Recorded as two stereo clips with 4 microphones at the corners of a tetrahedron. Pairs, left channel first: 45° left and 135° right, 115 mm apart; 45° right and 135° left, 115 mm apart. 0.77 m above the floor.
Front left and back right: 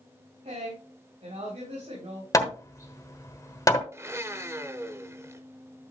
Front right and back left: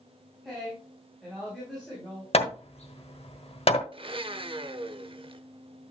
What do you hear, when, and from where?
0.4 s a woman speaking: 135° right, 5 m
2.3 s hammering: 15° right, 1.2 m
3.9 s a blender: 165° left, 0.7 m